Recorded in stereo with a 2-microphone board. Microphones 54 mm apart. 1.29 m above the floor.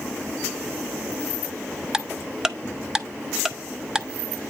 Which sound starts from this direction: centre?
Ticking, at 1.9 s.